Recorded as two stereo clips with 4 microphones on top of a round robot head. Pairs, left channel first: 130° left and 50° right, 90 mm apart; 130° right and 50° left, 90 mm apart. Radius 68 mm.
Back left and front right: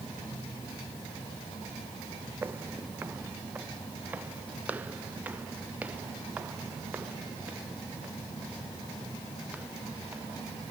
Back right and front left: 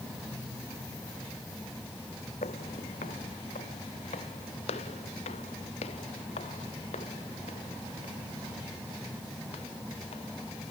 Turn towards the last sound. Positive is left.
turn(degrees=-125)